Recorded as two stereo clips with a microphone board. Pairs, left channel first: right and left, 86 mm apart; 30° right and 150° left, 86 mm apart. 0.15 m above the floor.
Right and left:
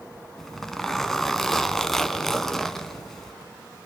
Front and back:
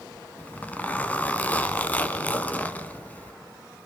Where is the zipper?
15° right, 0.9 m.